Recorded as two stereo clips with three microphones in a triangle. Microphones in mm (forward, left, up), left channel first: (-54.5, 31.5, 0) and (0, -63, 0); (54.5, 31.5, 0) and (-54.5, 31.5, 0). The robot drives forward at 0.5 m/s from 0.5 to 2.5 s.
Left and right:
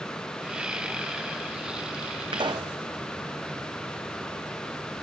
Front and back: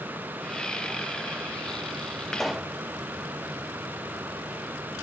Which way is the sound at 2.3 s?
85° right.